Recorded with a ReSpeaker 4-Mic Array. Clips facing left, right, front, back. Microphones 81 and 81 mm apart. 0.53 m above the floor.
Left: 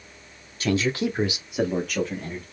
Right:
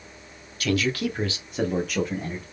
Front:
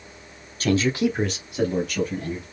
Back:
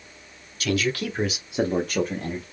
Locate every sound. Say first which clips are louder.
0.6 s a man speaking: left 1 dB, front 4 dB; 35° left, 1.2 m; by 2.4 s 170° right, 1.6 m